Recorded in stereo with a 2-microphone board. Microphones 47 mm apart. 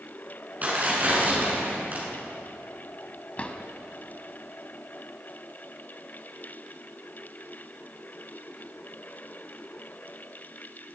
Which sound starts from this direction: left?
A drawer, at 3.4 s.